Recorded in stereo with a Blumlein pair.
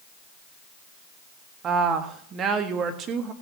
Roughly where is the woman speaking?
Ahead right.